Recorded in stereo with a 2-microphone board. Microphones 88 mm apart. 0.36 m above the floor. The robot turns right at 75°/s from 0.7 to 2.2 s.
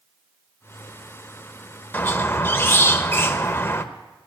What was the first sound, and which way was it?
A squeak, 20° left (ahead or behind).